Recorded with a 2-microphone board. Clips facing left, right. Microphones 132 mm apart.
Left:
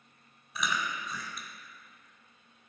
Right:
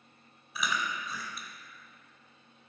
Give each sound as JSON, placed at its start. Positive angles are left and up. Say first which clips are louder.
{"t": 0.6, "sound": "chewing", "louder": "even", "side_deg": 0, "distance_m": 0.8}